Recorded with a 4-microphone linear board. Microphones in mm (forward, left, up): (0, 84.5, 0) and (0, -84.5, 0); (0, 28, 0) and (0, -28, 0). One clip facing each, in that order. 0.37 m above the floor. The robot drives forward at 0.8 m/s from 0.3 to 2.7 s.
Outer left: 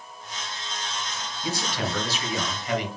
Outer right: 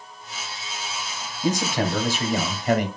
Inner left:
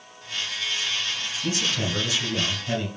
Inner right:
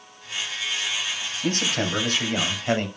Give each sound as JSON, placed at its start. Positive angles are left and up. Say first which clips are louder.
{"t": 1.4, "sound": "a man speaking", "louder": "outer right 7 dB, inner right 3 dB", "side_deg": -45, "distance_m": 2.5}